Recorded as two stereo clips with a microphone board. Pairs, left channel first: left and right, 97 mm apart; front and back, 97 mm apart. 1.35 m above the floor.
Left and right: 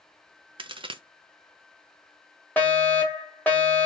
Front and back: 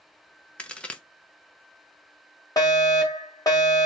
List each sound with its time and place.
0.6 s a crack: 75° right, 0.6 m
2.6 s a fire alarm: 25° left, 1.5 m